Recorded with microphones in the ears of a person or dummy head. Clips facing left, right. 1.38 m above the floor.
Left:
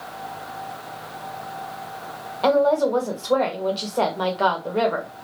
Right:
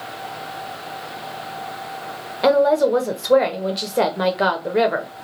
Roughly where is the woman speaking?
Right.